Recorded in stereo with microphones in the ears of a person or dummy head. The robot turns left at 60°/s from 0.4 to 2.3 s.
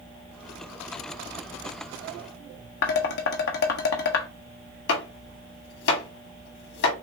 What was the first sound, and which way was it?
Dishes clattering, 60° left (ahead or behind).